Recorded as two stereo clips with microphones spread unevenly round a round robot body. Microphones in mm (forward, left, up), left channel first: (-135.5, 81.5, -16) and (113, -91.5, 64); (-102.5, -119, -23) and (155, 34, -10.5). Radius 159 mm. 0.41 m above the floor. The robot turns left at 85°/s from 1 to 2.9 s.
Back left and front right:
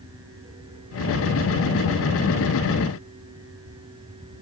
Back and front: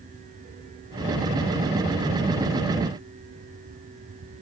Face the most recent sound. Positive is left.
No sound to turn to.